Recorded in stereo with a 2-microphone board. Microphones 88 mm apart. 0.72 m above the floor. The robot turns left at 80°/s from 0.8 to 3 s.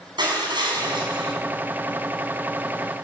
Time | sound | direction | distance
0.2 | crushing | 65° right | 7 m